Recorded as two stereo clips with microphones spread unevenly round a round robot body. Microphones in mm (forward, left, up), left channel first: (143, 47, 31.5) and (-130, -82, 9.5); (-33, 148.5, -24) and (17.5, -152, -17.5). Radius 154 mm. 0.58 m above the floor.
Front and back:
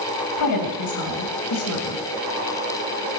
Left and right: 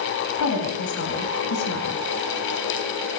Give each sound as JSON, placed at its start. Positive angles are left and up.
{"t": 0.4, "sound": "a woman speaking", "azimuth_deg": 55, "distance_m": 4.0}